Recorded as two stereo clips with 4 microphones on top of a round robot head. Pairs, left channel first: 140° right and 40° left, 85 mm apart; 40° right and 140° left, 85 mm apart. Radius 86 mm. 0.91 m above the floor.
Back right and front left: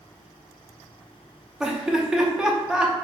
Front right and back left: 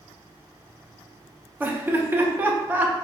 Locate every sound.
1.6 s laughter: 110° left, 0.6 m